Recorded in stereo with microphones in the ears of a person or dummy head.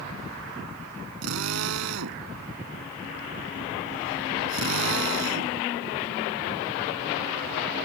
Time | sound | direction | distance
1.2 | a drill | 85° right | ?